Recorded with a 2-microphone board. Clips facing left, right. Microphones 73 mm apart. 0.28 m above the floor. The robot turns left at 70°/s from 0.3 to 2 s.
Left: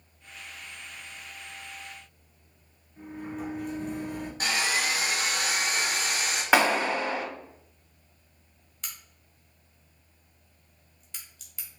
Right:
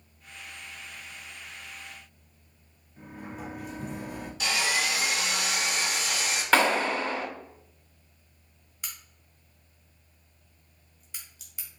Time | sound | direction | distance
3.0 | a sliding door | 5° right (ahead or behind) | 1.8 m
4.4 | sawing | 40° left (ahead or behind) | 2 m
6.5 | a clap | 15° left (ahead or behind) | 1.5 m
8.8 | a crack | 5° right (ahead or behind) | 2.5 m